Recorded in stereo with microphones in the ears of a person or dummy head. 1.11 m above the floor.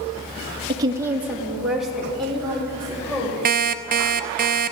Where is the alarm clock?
45° right (ahead or behind), 0.6 m.